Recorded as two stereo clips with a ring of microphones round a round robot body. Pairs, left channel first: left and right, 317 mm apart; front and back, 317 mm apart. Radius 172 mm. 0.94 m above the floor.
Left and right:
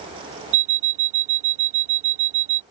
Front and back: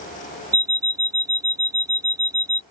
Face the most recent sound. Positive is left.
turn(degrees=-100)